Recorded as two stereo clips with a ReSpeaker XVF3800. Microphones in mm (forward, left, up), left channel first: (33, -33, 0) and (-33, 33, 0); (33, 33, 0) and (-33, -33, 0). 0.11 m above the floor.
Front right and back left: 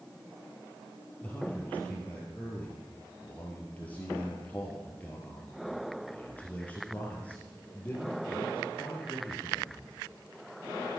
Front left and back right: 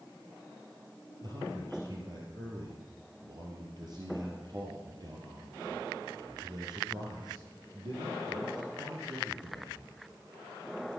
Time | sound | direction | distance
1.2 | a man speaking | 110° right | 2.5 m